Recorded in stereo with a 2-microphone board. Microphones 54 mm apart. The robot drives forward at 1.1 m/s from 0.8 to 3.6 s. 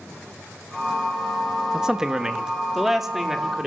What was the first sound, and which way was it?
A man speaking, 15° right (ahead or behind).